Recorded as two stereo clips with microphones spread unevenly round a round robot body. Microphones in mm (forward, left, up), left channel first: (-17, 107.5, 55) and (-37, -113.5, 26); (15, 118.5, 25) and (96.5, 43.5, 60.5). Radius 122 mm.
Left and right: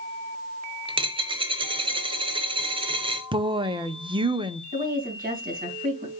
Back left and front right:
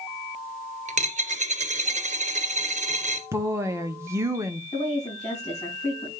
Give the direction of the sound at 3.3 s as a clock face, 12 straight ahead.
4 o'clock.